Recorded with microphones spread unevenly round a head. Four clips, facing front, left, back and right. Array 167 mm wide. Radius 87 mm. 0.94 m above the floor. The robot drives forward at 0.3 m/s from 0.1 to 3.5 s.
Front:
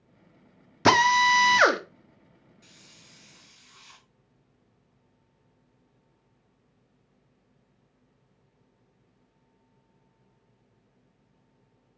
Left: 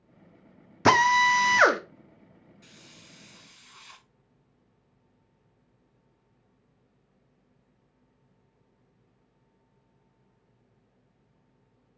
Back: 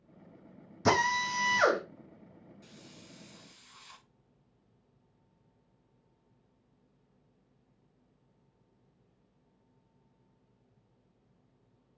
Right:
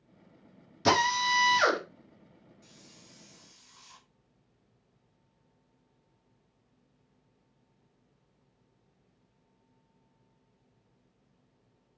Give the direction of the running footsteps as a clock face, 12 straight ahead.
No running footsteps in this recording.